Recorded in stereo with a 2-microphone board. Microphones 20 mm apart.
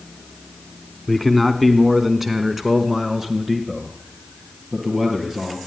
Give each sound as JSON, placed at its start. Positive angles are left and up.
{"t": 1.1, "sound": "a man speaking", "side_deg": 5, "distance_m": 1.1}